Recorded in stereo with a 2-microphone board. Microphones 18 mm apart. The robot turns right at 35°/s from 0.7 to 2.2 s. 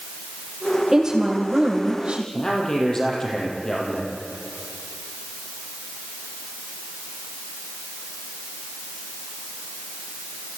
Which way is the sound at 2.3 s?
30° left (ahead or behind).